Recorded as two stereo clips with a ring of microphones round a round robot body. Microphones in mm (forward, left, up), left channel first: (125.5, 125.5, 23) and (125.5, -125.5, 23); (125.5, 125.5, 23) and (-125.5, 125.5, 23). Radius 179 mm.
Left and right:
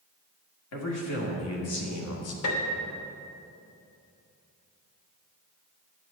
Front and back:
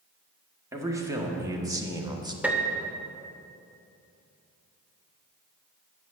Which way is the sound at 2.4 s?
95° left.